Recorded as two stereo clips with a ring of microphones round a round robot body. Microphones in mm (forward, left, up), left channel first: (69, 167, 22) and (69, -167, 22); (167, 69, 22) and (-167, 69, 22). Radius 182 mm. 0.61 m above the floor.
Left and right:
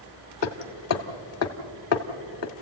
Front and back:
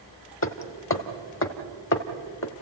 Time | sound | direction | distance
0.4 | hammering | 50° left | 1.5 m